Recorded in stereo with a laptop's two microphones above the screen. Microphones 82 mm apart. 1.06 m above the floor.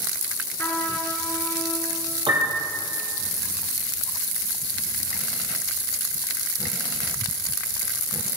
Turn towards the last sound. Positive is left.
turn(degrees=-85)